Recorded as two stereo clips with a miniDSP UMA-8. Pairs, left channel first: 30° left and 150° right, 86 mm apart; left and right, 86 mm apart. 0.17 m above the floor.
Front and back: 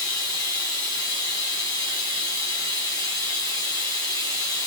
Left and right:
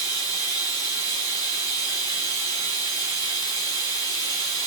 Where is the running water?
60° left, 1.9 m.